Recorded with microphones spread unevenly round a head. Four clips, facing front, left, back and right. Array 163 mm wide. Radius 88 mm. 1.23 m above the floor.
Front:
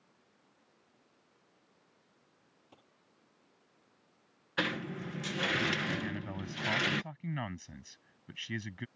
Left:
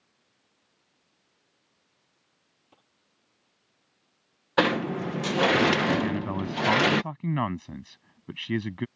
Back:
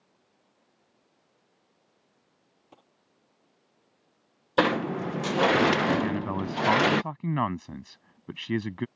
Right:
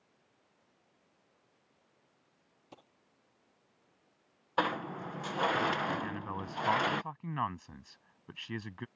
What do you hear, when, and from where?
2.7 s a dropped coin: 135° right
4.6 s a sliding door: 130° left
6.0 s a man speaking: 150° left